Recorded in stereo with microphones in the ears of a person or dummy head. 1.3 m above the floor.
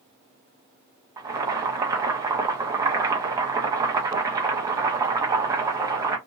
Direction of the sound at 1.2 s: 20° right (ahead or behind).